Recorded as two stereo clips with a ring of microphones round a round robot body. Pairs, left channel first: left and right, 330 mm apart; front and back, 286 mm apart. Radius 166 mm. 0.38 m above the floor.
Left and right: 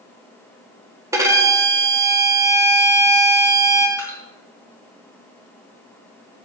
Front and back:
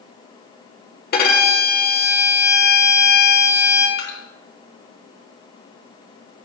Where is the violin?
15° right, 1.5 m.